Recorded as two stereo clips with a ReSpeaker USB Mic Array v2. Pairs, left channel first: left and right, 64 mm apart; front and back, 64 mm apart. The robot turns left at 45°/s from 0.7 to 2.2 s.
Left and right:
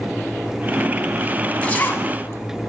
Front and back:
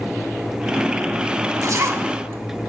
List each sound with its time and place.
1.6 s a zipper: 160° left, 0.7 m; by 2.7 s 135° left, 0.7 m